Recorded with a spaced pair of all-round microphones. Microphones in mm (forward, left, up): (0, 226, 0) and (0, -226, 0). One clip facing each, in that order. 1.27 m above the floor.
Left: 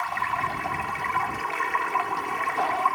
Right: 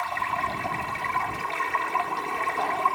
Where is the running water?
55° right (ahead or behind).